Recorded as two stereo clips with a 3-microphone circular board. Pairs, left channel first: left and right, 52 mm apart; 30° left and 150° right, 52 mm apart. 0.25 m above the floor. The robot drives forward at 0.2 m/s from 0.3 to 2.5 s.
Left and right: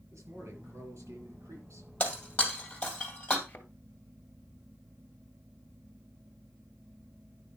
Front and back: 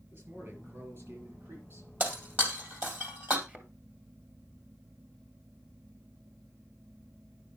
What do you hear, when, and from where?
0.1 s a man speaking: 110° right, 5.5 m; by 1.9 s 115° right, 5.5 m
2.0 s breaking glass: 155° left, 3 m; by 3.4 s 160° left, 3 m
3.5 s a thud: 150° left, 1.8 m